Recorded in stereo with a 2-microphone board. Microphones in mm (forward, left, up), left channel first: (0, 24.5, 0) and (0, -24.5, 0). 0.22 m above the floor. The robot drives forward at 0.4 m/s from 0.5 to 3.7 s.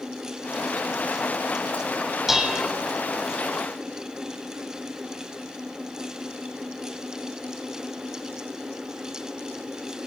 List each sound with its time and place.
2.3 s dishes clattering: 5° right (ahead or behind), 0.6 m